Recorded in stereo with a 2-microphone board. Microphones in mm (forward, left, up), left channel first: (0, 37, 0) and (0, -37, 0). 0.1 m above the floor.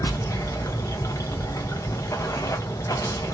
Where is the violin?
I don't hear a violin.